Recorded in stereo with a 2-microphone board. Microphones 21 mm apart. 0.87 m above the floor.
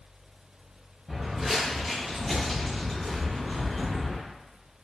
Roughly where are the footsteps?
Centre.